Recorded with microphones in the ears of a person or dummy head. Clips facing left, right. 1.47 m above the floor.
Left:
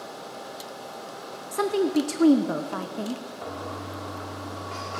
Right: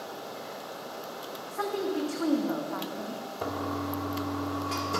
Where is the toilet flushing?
60° right (ahead or behind), 1.5 m.